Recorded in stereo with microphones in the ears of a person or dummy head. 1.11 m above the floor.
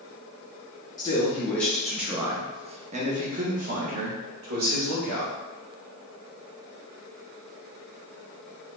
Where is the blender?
I don't hear a blender.